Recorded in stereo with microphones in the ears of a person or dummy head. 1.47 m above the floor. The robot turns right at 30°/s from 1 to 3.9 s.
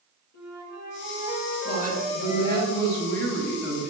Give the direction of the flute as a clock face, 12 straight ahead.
10 o'clock.